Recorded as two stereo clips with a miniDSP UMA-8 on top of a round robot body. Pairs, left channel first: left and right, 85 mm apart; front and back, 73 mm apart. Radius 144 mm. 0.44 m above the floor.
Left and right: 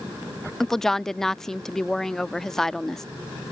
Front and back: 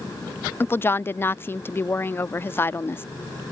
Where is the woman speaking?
10° left.